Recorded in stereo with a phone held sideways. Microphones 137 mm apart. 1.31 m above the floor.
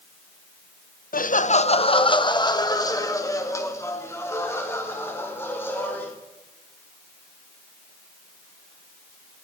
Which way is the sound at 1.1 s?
75° left (ahead or behind).